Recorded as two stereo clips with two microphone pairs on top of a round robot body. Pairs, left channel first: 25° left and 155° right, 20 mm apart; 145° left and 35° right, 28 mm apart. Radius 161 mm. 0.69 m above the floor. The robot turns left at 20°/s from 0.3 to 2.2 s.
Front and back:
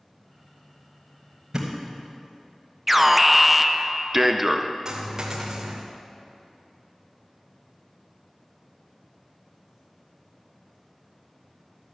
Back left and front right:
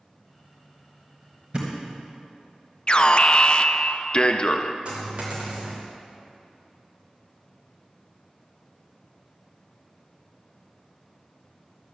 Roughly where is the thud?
Right.